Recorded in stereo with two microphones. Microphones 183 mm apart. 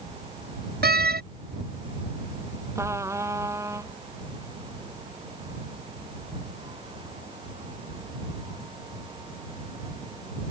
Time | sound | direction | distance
0.8 | a door slam | 60° right (ahead or behind) | ?
2.8 | a trumpet | 15° right (ahead or behind) | ?